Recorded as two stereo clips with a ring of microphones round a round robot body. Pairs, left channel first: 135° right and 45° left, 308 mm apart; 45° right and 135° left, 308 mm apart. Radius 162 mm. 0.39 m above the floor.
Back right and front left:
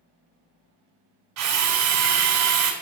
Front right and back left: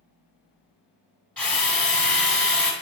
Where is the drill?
40° left, 1.4 m.